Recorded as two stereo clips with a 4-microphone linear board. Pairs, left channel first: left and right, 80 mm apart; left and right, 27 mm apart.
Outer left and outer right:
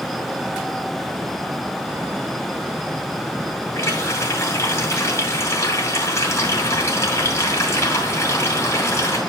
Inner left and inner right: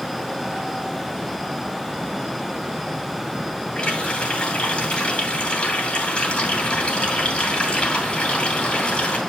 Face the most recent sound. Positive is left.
turn(degrees=35)  # may be behind; listen again after turning